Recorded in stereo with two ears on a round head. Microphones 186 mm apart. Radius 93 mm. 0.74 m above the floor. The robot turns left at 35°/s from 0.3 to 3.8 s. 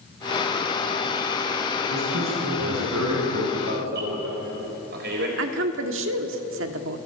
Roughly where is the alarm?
Right.